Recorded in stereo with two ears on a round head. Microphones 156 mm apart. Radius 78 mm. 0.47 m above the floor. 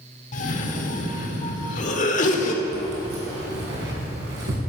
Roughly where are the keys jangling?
Right.